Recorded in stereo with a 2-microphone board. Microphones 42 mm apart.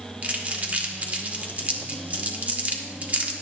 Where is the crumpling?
40° right (ahead or behind), 1.4 m.